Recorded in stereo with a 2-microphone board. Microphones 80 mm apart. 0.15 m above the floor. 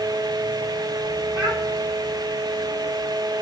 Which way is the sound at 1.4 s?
70° right (ahead or behind).